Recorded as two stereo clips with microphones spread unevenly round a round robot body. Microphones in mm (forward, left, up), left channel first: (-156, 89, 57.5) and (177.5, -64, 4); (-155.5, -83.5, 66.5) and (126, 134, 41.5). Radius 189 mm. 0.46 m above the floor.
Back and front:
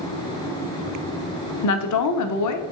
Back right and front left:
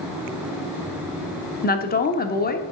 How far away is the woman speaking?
About 1.2 m.